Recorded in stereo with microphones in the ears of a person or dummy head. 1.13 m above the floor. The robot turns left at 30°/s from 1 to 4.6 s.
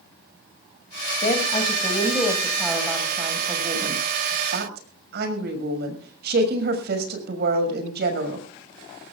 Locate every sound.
1.2 s a woman speaking: 40° left, 6.5 m; by 8.4 s 65° right, 6.5 m